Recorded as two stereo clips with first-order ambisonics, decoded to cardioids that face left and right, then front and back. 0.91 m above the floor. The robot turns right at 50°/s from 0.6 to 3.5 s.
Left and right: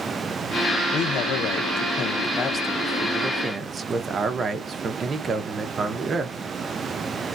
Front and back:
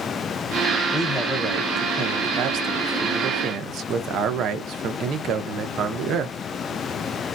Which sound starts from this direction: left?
A man speaking, at 0.9 s.